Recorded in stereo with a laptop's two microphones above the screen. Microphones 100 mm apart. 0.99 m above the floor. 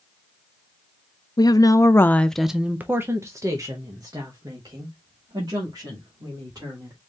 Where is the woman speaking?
45° left (ahead or behind), 0.7 m; by 7.0 s 45° right (ahead or behind), 3 m.